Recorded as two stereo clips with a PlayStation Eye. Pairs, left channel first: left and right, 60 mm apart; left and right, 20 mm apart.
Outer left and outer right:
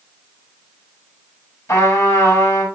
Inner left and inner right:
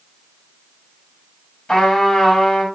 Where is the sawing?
I don't hear sawing.